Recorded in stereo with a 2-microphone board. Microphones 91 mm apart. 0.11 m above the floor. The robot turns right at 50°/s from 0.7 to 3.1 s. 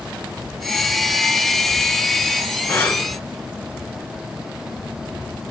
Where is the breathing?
25° left (ahead or behind), 1.4 m; by 3.1 s 45° left (ahead or behind), 1.4 m.